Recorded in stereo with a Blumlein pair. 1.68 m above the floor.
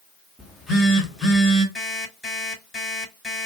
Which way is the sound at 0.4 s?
10° left.